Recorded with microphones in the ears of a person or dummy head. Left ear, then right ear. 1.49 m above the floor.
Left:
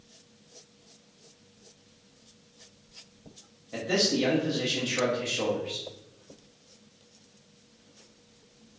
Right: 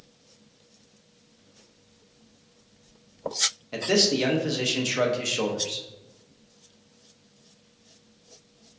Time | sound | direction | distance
3.7 | a man speaking | 70° right (ahead or behind) | 0.7 m